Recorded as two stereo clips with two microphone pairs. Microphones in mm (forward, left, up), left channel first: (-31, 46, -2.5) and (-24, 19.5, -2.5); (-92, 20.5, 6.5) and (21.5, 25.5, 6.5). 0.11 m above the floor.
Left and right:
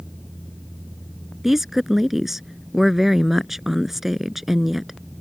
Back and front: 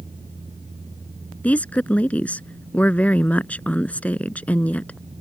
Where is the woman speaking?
135° right.